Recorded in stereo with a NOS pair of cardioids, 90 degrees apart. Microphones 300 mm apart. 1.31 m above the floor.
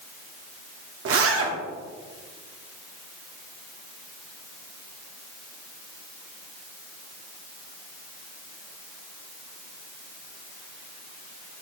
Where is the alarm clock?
I don't hear an alarm clock.